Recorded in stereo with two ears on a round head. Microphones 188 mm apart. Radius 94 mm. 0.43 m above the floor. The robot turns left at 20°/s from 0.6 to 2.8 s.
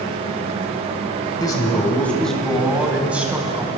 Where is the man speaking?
20° left (ahead or behind), 2.5 m; by 3.7 s 5° right (ahead or behind), 2.5 m.